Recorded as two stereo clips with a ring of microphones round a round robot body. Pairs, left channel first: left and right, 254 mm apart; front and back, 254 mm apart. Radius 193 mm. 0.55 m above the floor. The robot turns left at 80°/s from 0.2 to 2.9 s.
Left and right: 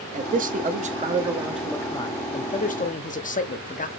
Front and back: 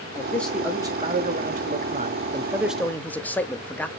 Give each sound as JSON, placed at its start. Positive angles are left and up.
{"t": 0.1, "sound": "a man speaking", "azimuth_deg": -65, "distance_m": 0.9}